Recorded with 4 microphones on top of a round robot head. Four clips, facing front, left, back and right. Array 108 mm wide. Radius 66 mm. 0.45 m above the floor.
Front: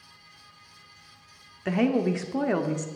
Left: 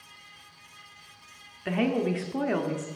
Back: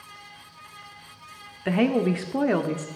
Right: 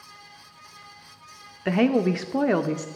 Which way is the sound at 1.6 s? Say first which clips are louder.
Right 5 dB, back 2 dB; 110° right.